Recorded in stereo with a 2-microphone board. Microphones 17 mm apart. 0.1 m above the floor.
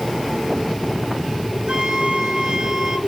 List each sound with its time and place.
1.7 s a flute: 45° right (ahead or behind), 0.9 m